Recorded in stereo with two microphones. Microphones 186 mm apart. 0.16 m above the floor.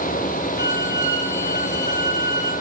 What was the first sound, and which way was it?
A violin, 35° right (ahead or behind).